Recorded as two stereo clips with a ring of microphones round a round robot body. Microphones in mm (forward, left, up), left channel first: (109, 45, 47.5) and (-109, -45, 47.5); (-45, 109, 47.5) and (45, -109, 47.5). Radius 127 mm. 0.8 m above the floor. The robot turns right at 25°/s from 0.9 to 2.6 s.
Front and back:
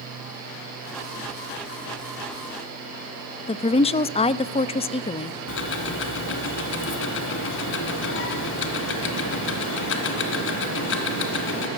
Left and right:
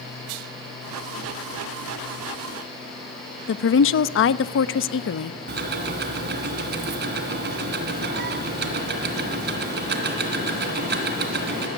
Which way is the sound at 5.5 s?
20° right.